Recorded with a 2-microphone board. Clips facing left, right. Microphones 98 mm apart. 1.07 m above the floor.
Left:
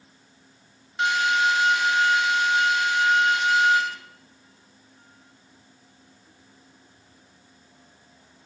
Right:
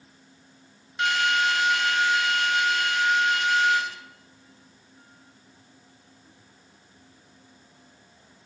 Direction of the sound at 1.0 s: 25° left (ahead or behind).